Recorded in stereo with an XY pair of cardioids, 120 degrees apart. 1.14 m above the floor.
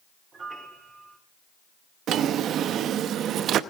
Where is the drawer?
65° right, 0.8 m.